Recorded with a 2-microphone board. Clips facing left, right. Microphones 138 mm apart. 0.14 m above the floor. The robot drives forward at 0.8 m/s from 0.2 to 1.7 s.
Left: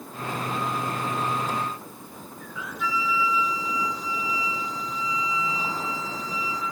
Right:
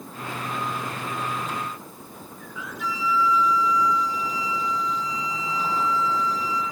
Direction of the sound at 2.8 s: 65° right (ahead or behind).